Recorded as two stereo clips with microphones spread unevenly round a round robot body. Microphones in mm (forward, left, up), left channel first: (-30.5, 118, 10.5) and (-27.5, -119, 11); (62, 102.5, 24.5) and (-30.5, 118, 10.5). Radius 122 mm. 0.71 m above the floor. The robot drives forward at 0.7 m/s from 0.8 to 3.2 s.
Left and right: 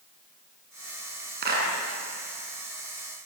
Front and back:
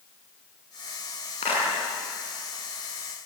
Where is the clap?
35° right, 7.5 m; by 1.7 s 40° right, 7 m.